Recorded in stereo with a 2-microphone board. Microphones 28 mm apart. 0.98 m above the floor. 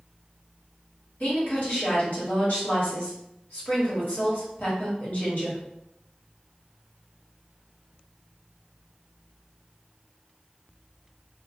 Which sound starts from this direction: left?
A woman speaking, at 1.2 s.